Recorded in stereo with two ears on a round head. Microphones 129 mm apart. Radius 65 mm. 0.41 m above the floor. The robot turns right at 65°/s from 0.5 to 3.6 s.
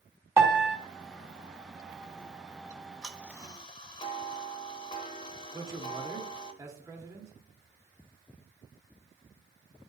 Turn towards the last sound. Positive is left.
turn(degrees=-25)  # may be behind; listen again after turning